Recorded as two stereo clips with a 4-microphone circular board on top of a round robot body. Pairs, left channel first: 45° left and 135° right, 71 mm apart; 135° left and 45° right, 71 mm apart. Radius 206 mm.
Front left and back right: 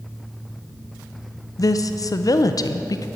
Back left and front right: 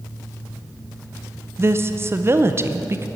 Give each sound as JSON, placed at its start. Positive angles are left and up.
{"t": 1.6, "sound": "a woman speaking", "azimuth_deg": 10, "distance_m": 0.8}